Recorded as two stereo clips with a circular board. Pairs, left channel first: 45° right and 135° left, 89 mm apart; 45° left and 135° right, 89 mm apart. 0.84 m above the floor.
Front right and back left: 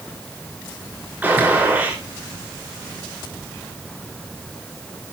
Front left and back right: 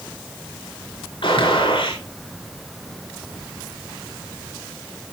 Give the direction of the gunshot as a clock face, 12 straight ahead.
10 o'clock.